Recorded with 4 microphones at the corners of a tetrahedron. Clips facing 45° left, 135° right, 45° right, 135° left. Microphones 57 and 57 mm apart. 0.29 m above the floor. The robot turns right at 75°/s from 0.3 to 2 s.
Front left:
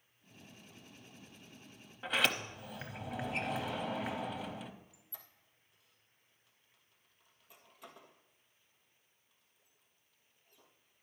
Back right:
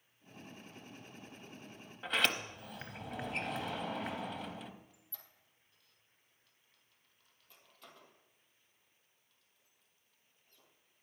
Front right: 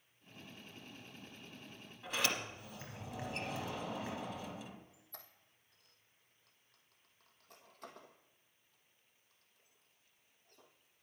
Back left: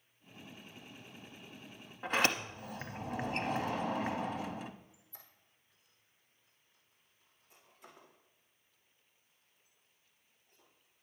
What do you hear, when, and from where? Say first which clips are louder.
2.0 s a sliding door: front left 1 dB, back left 6 dB; 130° left, 0.7 m
4.9 s a squeak: front left 2 dB, front right 3 dB; 35° right, 1.7 m